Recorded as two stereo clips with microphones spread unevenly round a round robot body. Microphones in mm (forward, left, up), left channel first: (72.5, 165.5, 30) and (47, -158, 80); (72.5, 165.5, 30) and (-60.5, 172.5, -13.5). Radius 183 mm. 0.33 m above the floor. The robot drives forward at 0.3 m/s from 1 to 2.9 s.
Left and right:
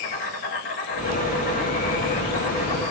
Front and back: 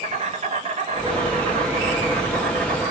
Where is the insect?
150° left, 0.8 m; by 2.9 s 160° left, 1.3 m.